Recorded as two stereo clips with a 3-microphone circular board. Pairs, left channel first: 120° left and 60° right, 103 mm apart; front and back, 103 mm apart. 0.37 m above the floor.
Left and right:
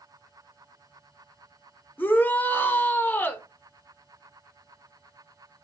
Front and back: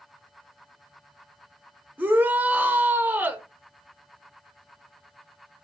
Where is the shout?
150° left, 0.9 m.